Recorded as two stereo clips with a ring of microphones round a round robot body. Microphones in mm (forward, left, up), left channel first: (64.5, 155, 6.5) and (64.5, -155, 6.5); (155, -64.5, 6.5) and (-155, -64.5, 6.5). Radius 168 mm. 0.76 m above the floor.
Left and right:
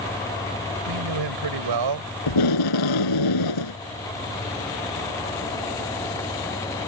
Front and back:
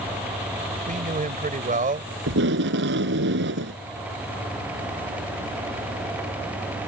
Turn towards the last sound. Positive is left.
turn(degrees=120)